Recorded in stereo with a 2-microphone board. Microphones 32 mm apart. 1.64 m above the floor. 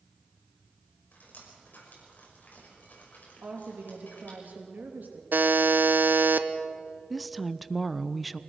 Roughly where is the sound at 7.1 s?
Centre.